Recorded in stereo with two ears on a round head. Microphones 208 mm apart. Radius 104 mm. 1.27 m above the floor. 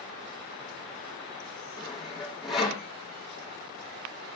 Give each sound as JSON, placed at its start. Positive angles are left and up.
{"t": 1.8, "sound": "sawing", "side_deg": 0, "distance_m": 4.5}